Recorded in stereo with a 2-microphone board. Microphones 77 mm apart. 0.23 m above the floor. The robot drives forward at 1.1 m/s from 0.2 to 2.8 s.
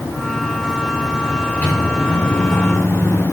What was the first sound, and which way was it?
A microwave, 20° left (ahead or behind).